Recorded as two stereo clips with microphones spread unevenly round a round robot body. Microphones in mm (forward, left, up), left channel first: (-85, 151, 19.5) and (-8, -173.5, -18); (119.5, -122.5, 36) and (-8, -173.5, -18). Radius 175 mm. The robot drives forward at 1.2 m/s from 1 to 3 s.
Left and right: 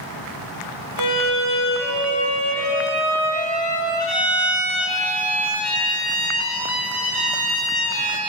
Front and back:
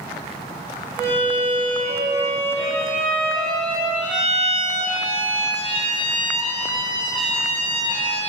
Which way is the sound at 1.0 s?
115° left.